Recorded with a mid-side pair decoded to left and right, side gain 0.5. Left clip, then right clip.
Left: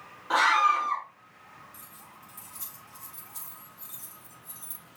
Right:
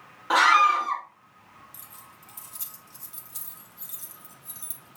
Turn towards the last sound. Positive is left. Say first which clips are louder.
# right 1 dB
turn(degrees=-50)